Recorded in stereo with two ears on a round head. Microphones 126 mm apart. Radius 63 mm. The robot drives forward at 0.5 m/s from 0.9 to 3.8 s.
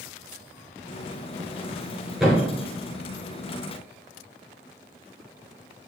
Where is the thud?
5° right (ahead or behind), 3 m.